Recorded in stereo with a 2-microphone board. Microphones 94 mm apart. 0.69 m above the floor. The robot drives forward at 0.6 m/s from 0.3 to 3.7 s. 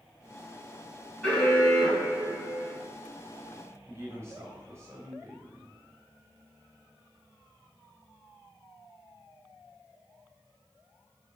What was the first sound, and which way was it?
An alarm, 5° left (ahead or behind).